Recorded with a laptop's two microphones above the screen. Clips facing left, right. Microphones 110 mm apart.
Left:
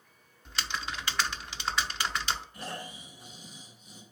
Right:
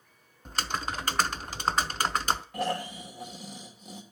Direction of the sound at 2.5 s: 85° right.